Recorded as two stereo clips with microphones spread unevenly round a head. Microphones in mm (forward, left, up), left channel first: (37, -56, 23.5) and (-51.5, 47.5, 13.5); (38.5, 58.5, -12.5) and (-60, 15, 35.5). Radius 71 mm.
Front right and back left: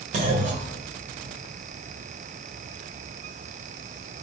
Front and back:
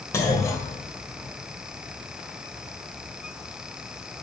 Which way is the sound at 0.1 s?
110° left.